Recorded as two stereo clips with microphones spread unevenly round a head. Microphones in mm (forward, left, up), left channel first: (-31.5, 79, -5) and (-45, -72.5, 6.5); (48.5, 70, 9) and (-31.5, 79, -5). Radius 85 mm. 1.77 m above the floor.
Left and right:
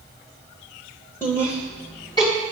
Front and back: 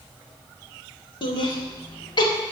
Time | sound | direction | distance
1.2 | laughter | 5° left | 1.8 m